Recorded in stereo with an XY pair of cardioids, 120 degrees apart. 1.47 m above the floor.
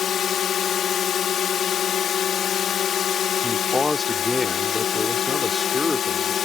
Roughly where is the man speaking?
Ahead.